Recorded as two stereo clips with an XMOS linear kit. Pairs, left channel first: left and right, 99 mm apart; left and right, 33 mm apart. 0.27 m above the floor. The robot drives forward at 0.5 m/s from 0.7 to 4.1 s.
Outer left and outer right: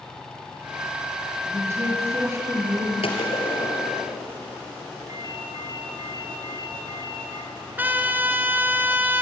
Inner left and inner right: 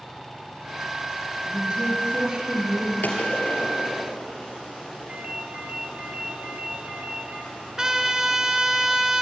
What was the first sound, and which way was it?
A woman speaking, 30° right (ahead or behind).